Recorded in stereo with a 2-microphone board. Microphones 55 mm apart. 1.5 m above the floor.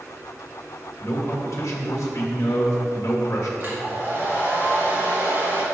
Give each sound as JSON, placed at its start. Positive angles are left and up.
{"t": 1.0, "sound": "a man speaking", "side_deg": 60, "distance_m": 1.2}
{"t": 3.6, "sound": "a hair dryer", "side_deg": -40, "distance_m": 2.0}